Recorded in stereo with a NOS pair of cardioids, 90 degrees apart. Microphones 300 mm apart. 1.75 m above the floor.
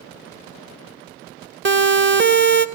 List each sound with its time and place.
1.6 s a siren: 40° right, 2.5 m